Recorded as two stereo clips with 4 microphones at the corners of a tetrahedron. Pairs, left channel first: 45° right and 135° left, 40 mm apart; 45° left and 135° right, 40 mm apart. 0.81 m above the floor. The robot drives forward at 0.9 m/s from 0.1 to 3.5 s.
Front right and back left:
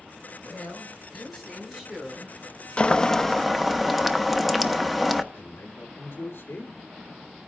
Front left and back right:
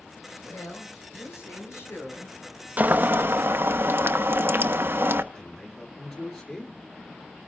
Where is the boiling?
95° right, 0.8 m; by 5.2 s 140° right, 1.1 m.